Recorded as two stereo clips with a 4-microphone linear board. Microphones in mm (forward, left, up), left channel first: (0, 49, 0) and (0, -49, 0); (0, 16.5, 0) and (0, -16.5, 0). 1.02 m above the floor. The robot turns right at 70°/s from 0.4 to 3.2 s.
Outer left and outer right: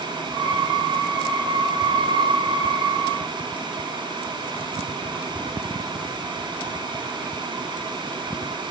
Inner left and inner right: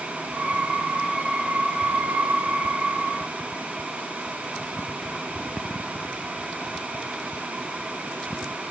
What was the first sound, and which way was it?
Only background noise.